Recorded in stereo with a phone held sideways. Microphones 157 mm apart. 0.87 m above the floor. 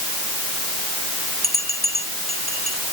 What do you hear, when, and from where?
1.4 s a bell: 65° right (ahead or behind)